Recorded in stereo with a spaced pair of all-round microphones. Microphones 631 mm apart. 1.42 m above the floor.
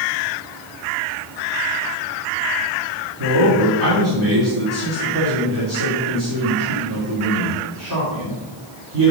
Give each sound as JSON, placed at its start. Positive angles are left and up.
{"t": 3.2, "sound": "a man speaking", "side_deg": -30, "distance_m": 3.0}